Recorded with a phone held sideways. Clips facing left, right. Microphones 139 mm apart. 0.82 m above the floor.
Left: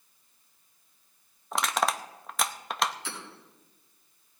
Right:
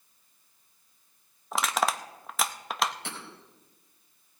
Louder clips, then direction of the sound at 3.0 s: Even; 65° right (ahead or behind).